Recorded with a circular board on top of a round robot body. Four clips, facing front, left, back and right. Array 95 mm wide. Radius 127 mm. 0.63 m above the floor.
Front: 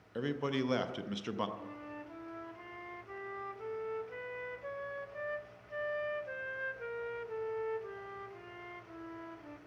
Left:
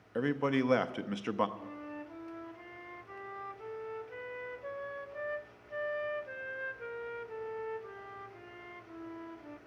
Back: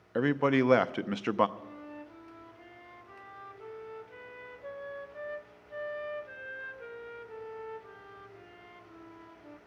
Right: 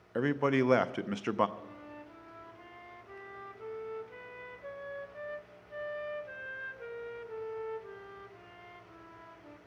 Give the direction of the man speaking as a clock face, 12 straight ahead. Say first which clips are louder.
Right 2 dB, back 9 dB; 5 o'clock.